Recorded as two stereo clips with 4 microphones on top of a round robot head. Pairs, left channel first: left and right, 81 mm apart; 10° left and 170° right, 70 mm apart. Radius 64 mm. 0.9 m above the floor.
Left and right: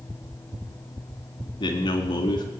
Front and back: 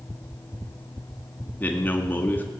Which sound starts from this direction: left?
A man speaking, at 1.6 s.